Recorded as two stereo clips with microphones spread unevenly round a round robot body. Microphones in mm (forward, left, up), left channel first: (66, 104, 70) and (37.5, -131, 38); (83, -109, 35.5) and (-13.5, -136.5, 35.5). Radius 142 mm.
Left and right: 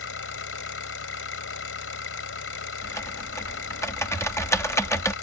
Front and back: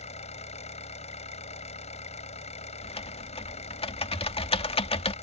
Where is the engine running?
50° left.